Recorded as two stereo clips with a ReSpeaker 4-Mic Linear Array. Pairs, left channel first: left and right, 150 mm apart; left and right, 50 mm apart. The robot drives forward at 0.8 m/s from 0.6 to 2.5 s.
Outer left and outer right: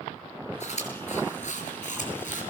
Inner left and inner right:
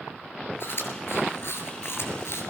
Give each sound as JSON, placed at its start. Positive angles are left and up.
{"t": 0.6, "sound": "chewing", "side_deg": 55, "distance_m": 6.5}